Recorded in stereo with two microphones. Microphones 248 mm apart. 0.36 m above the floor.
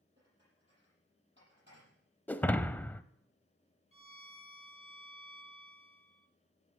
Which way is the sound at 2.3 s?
5° left (ahead or behind).